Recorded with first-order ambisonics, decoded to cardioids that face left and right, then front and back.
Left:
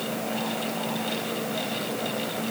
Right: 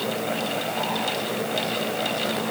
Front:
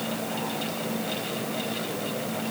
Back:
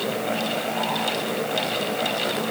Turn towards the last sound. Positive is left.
No sound to turn to.